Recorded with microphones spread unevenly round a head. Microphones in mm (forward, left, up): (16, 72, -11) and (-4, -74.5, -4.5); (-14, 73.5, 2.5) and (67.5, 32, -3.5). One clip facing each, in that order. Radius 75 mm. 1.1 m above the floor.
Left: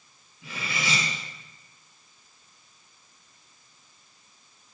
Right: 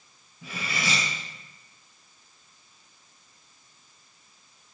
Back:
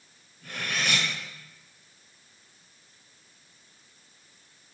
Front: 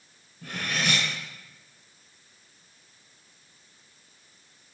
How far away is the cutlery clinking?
About 6 m.